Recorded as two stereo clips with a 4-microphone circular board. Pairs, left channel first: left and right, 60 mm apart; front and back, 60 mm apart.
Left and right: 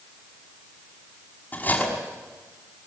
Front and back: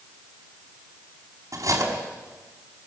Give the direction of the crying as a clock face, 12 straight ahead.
No crying in this recording.